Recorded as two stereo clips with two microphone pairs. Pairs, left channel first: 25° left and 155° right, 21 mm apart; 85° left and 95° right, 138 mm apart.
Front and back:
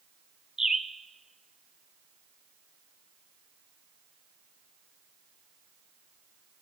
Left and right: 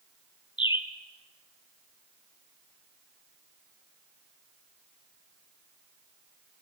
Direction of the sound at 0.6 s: 140° left.